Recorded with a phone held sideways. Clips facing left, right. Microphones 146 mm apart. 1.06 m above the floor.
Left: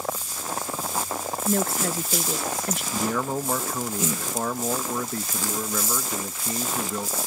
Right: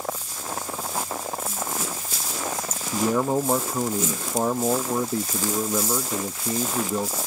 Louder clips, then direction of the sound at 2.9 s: Right 6 dB; 25° right (ahead or behind).